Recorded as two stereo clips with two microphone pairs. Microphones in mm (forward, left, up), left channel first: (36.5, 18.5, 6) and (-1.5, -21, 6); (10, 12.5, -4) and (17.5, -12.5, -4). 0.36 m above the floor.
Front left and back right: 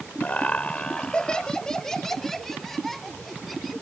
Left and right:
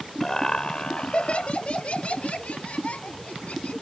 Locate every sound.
0.2 s laughter: 55° left; by 3.7 s 135° left